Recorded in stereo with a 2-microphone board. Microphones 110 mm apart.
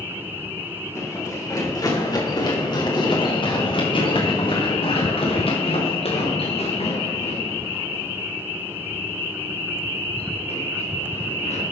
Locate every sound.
0.9 s running footsteps: 25° left (ahead or behind), 4.5 m; by 11.6 s 90° left, 7 m